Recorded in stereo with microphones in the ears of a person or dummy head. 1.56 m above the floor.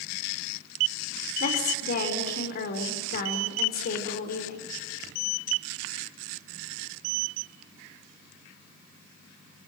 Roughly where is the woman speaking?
Left.